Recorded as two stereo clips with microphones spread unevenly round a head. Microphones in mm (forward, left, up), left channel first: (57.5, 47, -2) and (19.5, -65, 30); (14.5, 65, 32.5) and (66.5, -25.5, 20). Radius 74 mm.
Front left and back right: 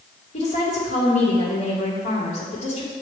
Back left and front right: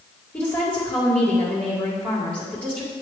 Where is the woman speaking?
45° left, 2 m.